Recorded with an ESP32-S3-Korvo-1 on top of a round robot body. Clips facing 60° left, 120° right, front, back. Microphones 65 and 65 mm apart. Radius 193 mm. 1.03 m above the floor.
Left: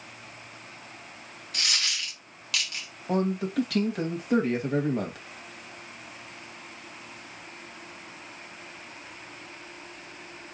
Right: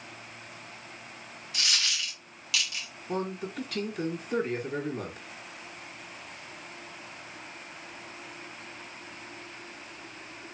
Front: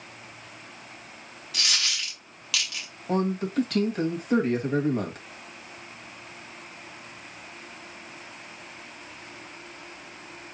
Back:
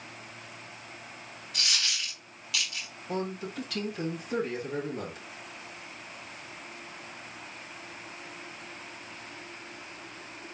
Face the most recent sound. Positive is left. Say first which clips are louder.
# left 6 dB, front 8 dB
turn(degrees=45)